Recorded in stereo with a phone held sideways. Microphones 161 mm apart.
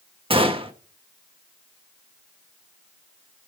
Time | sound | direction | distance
0.3 | a gunshot | 35° right (ahead or behind) | 1.3 m